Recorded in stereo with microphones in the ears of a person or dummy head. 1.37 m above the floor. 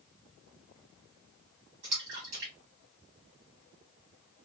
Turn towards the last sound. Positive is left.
turn(degrees=-40)  # may be behind; listen again after turning